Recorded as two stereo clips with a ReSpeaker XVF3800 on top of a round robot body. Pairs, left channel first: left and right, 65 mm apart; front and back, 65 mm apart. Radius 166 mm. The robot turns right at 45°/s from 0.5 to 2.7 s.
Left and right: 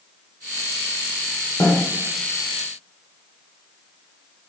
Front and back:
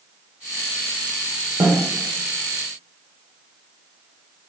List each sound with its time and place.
1.6 s a snare drum: 145° left, 0.7 m; by 1.8 s 155° left, 0.7 m